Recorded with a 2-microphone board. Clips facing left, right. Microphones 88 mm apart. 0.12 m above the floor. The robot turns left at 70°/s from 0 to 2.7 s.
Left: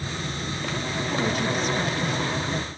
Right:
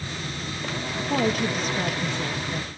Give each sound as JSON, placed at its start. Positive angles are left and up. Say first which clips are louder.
{"t": 1.0, "sound": "a woman speaking", "louder": "right 3 dB", "azimuth_deg": -75, "distance_m": 3.5}